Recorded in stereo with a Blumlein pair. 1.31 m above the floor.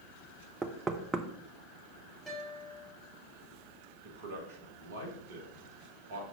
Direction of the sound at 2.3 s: 5° left.